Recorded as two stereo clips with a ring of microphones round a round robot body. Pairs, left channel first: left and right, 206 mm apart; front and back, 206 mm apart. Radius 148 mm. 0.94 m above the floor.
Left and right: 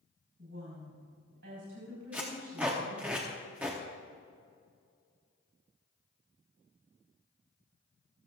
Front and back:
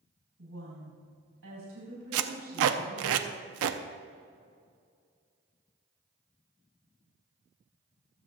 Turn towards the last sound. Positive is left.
turn(degrees=-175)